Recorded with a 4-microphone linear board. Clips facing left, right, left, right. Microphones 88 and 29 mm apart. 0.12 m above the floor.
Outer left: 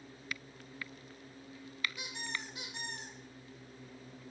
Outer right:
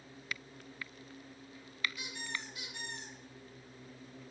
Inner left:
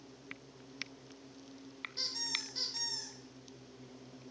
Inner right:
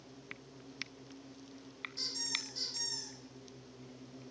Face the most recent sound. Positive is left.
turn(degrees=30)  # may be behind; listen again after turning